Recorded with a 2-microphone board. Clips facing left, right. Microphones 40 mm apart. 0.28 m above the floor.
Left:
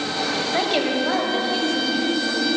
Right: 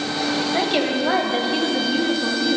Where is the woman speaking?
10° left (ahead or behind), 1.3 m; by 2.6 s 50° right (ahead or behind), 3 m.